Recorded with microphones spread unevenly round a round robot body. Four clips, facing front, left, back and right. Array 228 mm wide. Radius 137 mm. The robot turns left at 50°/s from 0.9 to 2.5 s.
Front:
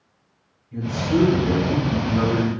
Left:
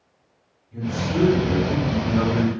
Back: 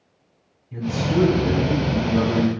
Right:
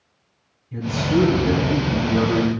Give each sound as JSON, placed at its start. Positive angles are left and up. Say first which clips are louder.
{"t": 0.7, "sound": "a woman speaking", "louder": "right 4 dB, front 1 dB", "azimuth_deg": -140, "distance_m": 3.5}